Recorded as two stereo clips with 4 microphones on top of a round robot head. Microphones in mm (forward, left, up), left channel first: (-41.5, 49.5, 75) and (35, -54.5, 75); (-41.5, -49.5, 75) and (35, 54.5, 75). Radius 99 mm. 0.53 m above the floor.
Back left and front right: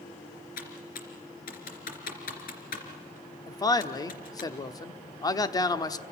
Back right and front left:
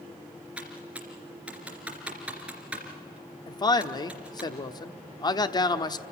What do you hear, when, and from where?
0.6 s typing on a keyboard: 135° left, 3 m
3.5 s a man speaking: straight behind, 1.2 m